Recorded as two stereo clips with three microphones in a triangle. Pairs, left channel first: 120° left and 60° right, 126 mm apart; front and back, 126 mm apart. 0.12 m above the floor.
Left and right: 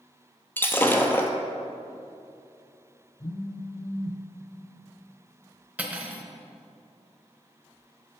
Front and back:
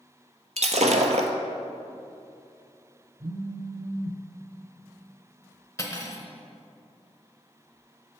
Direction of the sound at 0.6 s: 170° right.